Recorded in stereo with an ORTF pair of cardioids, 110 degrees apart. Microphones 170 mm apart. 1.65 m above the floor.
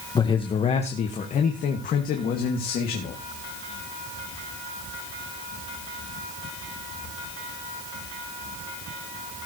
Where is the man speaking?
25° left, 1.5 m; by 3.2 s 65° left, 3 m.